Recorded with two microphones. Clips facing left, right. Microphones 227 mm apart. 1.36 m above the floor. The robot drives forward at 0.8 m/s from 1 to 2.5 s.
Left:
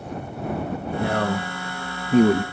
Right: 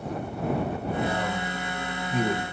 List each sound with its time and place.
1.0 s a man speaking: 65° left (ahead or behind), 1.3 m; by 2.4 s 60° left (ahead or behind), 1.3 m